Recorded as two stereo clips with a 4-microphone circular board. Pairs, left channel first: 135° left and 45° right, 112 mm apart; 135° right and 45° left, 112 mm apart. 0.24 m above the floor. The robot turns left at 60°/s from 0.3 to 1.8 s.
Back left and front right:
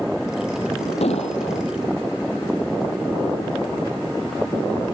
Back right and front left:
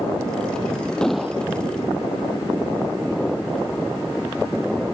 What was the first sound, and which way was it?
An explosion, 145° left.